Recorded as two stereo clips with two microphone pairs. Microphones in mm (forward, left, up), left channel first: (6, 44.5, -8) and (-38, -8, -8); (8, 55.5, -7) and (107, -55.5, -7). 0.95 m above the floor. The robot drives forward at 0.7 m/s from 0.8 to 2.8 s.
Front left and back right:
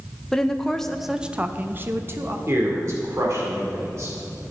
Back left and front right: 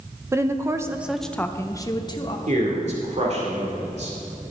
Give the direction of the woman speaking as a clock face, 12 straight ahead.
1 o'clock.